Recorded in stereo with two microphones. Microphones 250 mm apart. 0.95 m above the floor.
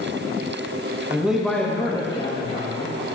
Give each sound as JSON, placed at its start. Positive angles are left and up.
{"t": 1.1, "sound": "a man speaking", "side_deg": -10, "distance_m": 1.2}